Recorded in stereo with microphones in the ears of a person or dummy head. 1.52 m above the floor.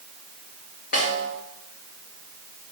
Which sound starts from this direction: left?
A snare drum, at 0.9 s.